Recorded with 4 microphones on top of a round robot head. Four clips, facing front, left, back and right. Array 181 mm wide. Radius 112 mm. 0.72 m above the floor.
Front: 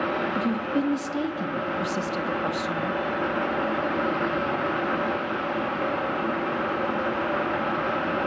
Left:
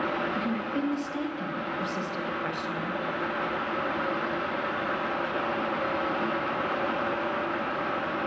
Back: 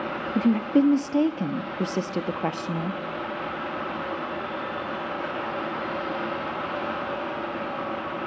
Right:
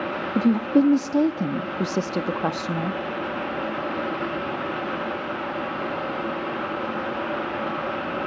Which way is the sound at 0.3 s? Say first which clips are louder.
Right 10 dB, back 4 dB; 120° right.